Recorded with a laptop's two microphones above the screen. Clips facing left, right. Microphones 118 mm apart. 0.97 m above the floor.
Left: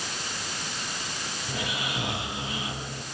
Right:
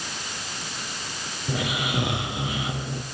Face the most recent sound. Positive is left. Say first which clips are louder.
# right 6 dB
turn(degrees=-65)  # may be behind; listen again after turning